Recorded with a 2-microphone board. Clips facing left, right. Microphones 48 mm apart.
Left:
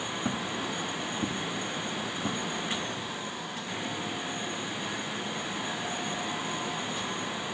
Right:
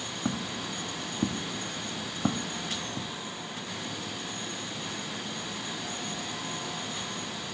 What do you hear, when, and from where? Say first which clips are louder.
0.2 s footsteps: right 1 dB; 10° right (ahead or behind), 1.3 m; by 3.1 s 65° right (ahead or behind), 1.2 m